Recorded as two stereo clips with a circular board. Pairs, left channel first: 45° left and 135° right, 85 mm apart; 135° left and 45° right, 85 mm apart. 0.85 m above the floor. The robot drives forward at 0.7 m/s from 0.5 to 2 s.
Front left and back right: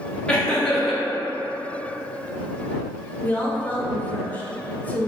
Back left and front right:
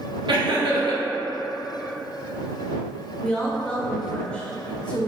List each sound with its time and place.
0.3 s laughter: 35° right, 0.8 m; by 1.0 s 55° right, 0.6 m
3.2 s a woman speaking: 75° left, 0.6 m